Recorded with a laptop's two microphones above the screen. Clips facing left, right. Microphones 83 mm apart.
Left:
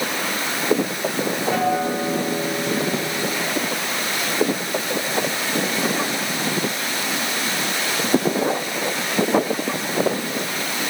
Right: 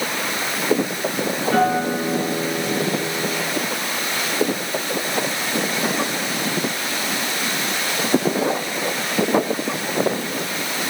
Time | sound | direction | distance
1.5 | a guitar | 10° left (ahead or behind) | 9.5 m